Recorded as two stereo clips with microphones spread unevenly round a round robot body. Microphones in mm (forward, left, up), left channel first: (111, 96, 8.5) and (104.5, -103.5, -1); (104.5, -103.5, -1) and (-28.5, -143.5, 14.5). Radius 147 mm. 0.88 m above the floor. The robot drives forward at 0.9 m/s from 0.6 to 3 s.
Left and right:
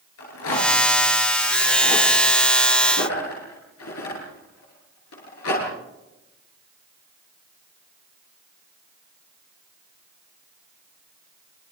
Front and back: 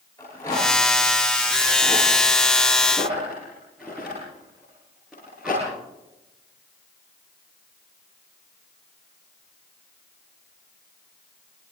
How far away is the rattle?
About 10 m.